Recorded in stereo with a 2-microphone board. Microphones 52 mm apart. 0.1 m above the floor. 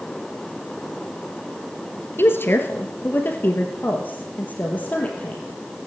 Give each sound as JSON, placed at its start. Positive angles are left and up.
{"t": 2.2, "sound": "a woman speaking", "side_deg": 45, "distance_m": 1.6}